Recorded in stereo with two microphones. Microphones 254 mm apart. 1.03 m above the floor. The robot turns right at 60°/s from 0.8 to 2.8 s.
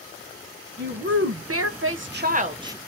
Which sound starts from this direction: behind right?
A woman speaking, at 0.8 s.